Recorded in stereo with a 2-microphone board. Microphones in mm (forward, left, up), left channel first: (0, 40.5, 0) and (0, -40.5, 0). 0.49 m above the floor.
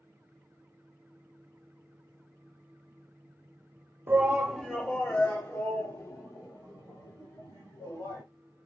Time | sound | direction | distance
4.1 | a shout | 25° right (ahead or behind) | 0.8 m